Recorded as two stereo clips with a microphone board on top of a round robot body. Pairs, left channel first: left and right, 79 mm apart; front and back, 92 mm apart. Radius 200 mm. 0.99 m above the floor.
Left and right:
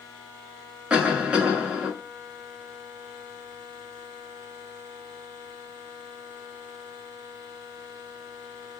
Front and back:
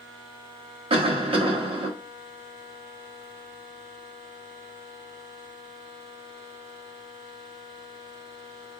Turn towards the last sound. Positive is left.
turn(degrees=-165)